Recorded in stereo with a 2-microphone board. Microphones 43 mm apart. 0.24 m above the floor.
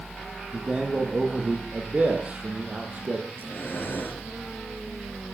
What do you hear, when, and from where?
0.5 s a man speaking: 20° right (ahead or behind), 7.5 m; by 3.2 s 40° right (ahead or behind), 6.5 m
3.3 s breathing: 50° left (ahead or behind), 5.5 m